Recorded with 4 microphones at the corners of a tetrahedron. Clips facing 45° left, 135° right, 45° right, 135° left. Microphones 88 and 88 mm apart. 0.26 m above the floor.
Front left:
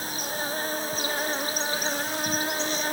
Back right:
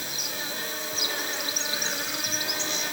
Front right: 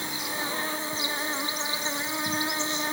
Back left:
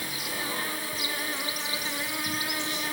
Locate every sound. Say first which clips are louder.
0.0 s an insect: front left 5 dB, front right 2 dB; 10° left, 2.5 m